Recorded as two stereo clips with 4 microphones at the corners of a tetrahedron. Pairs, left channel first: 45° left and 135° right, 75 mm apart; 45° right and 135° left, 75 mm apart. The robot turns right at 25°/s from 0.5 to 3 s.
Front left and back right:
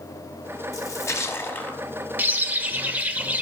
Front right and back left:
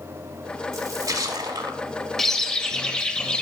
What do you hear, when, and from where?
0.7 s a splash: 85° left, 0.8 m; by 1.8 s 115° left, 0.8 m
2.2 s a bird: 120° right, 0.6 m; by 3.4 s 100° right, 0.6 m